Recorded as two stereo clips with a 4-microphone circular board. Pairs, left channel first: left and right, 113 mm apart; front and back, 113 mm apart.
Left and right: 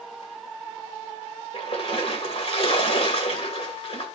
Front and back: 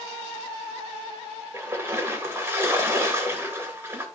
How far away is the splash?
About 3 m.